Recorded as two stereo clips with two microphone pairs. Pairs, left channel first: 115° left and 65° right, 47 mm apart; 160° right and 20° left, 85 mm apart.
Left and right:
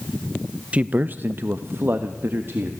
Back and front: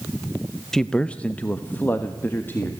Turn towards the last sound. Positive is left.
turn(degrees=-95)